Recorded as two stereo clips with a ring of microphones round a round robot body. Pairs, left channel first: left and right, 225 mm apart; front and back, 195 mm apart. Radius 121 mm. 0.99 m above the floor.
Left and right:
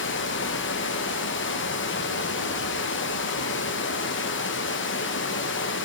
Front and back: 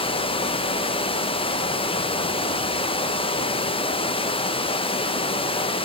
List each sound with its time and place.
0.0 s running water: 60° left, 0.8 m